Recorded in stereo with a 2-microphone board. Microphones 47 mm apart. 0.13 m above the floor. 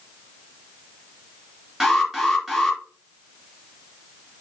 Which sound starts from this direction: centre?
An alarm, at 1.8 s.